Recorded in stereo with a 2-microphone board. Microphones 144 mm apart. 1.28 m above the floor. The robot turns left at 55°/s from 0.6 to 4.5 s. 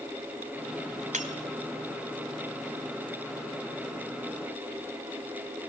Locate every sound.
1.1 s breaking glass: 55° right (ahead or behind), 2 m; by 1.3 s 50° right (ahead or behind), 2 m